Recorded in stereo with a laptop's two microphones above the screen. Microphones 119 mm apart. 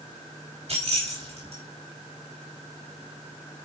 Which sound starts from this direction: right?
Keys jangling, at 0.7 s.